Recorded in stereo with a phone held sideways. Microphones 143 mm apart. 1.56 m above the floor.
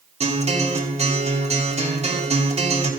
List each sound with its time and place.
0.2 s a guitar: 50° right (ahead or behind), 3 m